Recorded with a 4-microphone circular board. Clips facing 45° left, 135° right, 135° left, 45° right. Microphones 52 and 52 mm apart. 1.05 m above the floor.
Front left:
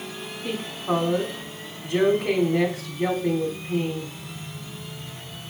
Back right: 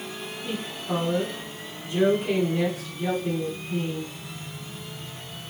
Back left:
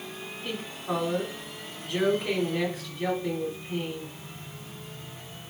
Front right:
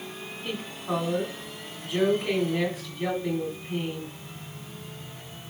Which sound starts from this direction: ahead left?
A woman speaking, at 0.4 s.